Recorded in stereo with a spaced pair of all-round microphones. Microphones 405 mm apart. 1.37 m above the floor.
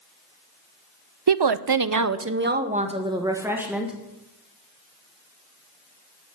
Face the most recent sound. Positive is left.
turn(degrees=0)  # may be behind; listen again after turning